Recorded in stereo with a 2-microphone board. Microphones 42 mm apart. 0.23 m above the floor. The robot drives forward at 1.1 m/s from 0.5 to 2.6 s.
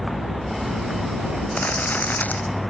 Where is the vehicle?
Centre (ahead or behind).